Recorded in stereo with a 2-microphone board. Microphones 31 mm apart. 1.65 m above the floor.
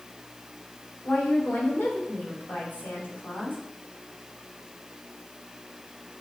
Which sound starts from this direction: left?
A woman speaking, at 1.0 s.